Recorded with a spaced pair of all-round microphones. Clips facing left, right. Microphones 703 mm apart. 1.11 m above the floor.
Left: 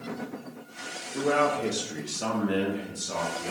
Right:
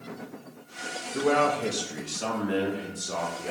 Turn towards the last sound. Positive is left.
turn(degrees=35)  # may be behind; listen again after turning